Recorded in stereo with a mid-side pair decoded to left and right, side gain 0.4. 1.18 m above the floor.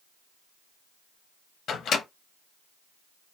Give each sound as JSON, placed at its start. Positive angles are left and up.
{"t": 1.7, "sound": "a microwave", "azimuth_deg": 70, "distance_m": 0.8}